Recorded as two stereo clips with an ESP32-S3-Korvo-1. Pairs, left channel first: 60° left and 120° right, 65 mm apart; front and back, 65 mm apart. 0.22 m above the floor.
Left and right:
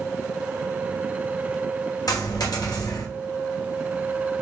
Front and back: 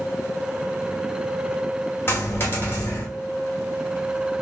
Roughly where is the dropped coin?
Ahead left.